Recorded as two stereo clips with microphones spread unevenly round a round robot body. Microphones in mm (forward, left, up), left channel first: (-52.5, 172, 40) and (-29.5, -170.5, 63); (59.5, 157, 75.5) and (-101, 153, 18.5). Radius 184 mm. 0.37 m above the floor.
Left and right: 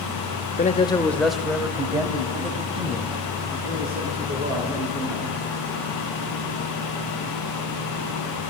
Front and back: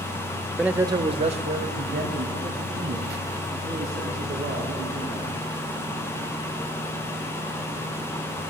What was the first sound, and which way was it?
A man speaking, 130° left.